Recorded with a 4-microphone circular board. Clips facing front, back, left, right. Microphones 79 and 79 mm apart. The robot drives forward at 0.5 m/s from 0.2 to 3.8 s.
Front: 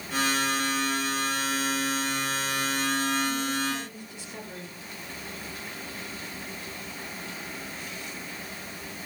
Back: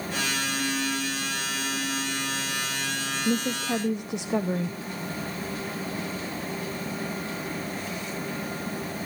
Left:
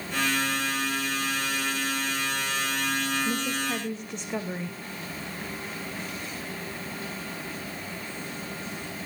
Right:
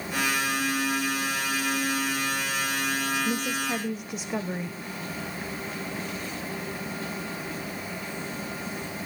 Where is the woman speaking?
170° right, 0.8 m; by 4.8 s 175° right, 1.0 m.